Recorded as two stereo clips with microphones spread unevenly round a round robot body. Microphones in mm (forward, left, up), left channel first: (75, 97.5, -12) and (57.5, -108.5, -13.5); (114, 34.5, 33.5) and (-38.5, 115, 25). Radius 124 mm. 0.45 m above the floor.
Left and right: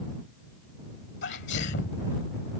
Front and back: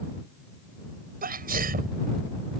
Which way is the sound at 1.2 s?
130° left.